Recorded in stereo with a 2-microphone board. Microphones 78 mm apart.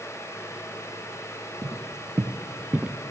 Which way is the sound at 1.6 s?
65° right (ahead or behind).